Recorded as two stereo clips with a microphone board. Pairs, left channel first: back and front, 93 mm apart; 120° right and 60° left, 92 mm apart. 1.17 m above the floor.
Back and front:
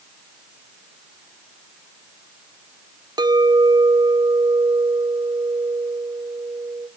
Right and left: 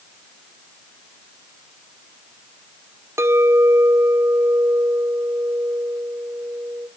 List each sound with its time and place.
3.2 s a clink: 10° left, 0.7 m